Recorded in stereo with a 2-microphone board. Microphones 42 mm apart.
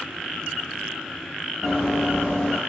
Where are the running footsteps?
5° left (ahead or behind), 1.8 m.